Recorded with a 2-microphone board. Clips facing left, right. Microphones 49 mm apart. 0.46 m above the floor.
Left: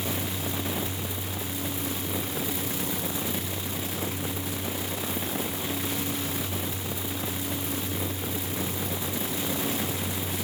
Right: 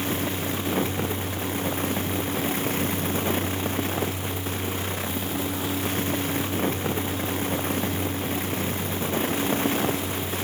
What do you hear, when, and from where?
Only background noise.